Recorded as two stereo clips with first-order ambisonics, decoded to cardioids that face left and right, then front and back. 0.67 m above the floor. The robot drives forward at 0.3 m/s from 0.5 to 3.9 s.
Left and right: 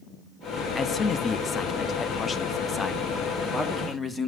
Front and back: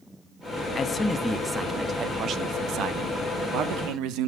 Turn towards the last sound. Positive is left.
turn(degrees=165)